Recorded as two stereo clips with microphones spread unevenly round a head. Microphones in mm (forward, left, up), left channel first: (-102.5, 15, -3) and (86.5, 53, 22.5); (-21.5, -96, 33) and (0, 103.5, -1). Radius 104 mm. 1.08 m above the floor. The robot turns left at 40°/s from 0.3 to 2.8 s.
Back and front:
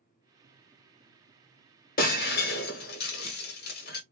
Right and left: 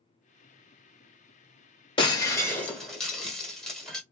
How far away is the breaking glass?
About 0.9 m.